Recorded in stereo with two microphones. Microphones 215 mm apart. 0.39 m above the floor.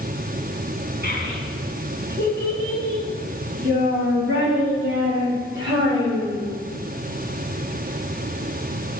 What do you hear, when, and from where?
1.0 s a child speaking: 50° right (ahead or behind), 3 m; by 6.5 s 85° right, 7 m